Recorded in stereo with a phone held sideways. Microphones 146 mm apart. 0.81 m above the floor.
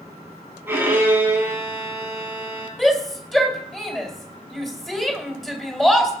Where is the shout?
Centre (ahead or behind), 3 m.